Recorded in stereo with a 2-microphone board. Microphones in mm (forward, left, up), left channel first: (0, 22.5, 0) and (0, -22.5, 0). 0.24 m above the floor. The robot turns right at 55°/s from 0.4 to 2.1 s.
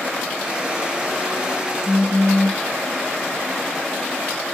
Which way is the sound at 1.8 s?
Centre (ahead or behind).